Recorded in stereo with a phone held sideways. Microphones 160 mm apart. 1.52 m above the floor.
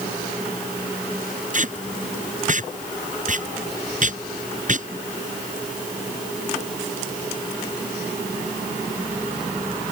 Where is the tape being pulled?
50° right (ahead or behind).